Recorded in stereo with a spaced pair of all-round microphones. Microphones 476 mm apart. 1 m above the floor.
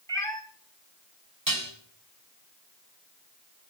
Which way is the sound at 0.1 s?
5° left (ahead or behind).